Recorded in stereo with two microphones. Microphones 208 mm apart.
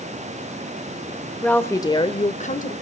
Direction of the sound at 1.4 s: 5° left (ahead or behind).